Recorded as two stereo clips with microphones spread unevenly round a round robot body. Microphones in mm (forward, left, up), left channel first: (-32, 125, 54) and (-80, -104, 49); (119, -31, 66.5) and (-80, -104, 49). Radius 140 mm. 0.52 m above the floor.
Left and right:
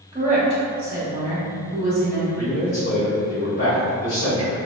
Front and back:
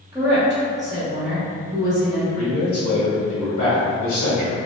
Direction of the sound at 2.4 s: 25° left.